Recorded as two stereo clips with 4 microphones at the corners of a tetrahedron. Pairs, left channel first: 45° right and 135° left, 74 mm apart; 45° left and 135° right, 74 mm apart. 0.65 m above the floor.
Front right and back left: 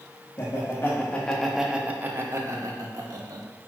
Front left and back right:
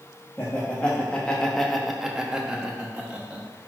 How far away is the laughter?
About 0.8 m.